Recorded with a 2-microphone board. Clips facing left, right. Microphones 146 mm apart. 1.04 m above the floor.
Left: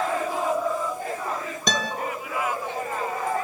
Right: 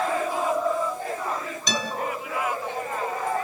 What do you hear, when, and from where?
1.7 s a guitar: 55° left (ahead or behind), 2.5 m